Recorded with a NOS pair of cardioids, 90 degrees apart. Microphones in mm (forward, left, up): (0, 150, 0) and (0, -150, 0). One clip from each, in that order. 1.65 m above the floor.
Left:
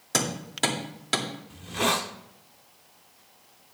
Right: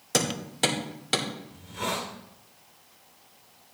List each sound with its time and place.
0.1 s hammering: 5° left, 2.5 m
1.5 s a hiss: 65° left, 1.0 m